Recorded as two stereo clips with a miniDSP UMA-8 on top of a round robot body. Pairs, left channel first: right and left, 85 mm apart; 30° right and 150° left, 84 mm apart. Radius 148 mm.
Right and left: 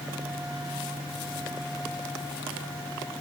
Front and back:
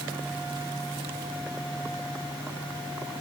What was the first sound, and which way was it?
Only background noise.